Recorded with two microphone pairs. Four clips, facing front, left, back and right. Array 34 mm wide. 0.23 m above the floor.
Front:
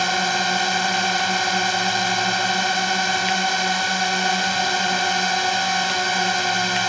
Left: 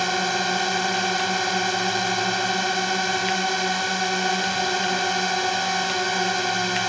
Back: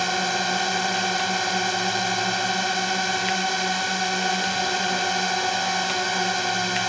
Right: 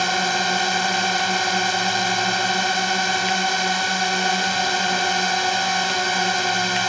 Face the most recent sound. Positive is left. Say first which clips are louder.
# right 2 dB, front 3 dB
turn(degrees=-35)